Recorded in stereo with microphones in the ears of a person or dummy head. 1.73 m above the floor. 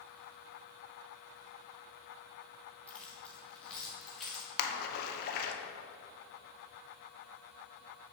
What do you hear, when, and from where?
2.9 s keys jangling: 10° left (ahead or behind), 1.6 m; by 4.5 s 5° left (ahead or behind), 3.5 m
4.6 s a splash: 55° left (ahead or behind), 1.1 m